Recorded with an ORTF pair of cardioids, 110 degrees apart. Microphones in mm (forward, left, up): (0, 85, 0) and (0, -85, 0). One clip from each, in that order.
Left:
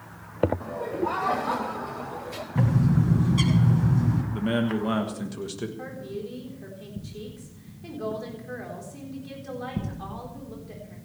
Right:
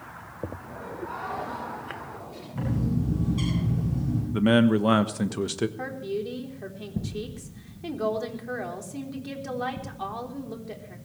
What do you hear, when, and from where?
0.6 s laughter: 60° left, 5.5 m; by 2.5 s 80° left, 6 m
2.5 s a bird: 45° left, 9.5 m
4.3 s a man speaking: 40° right, 1.2 m
5.8 s a woman speaking: 45° right, 4 m